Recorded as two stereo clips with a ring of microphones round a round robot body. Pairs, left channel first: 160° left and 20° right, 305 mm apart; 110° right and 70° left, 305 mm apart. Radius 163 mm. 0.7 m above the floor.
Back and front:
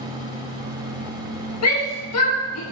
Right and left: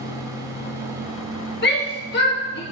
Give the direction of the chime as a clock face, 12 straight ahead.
No chime in this recording.